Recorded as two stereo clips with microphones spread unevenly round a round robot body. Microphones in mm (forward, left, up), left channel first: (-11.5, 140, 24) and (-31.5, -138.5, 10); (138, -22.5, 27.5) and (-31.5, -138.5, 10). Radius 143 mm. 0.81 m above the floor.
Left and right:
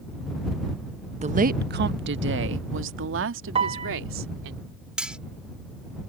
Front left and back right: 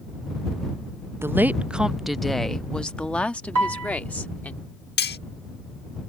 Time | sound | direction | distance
1.2 | a woman speaking | 95° right | ?
3.5 | a piano | 165° right | ?
5.0 | cutlery clinking | 5° right | ?